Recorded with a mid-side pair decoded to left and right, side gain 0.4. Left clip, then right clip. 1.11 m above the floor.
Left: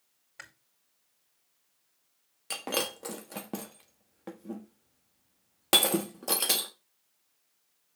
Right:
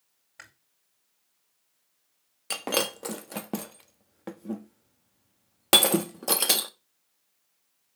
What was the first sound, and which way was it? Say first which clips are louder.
Chewing: left 1 dB; 10° left.